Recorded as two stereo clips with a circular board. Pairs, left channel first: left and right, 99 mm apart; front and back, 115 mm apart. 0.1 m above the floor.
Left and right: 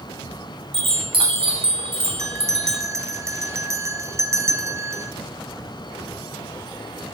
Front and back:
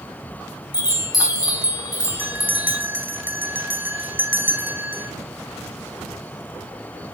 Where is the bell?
120° right, 1.8 m.